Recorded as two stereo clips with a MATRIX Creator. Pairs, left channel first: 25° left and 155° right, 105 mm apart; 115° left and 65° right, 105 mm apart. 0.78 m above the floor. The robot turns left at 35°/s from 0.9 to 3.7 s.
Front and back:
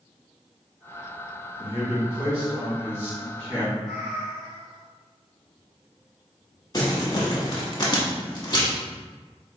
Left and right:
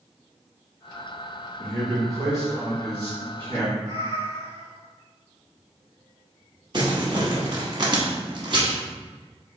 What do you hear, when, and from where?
1.6 s a man speaking: 10° left, 1.9 m; by 3.7 s 65° right, 1.9 m
3.8 s a cat meowing: 80° right, 1.6 m
6.7 s crumpling: 30° right, 0.9 m